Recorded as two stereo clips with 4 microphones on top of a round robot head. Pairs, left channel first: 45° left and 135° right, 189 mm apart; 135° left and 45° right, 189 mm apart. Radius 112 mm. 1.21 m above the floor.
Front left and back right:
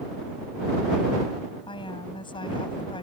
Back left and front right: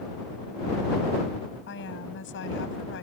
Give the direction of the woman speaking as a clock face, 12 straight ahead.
8 o'clock.